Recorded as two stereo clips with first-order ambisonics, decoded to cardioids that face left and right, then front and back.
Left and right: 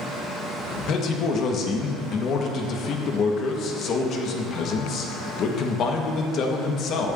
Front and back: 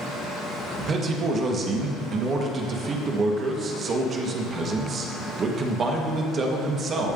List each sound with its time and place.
0.8 s a man speaking: 125° left, 1.1 m